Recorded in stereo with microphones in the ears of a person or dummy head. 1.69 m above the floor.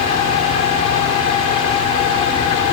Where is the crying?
No crying in this recording.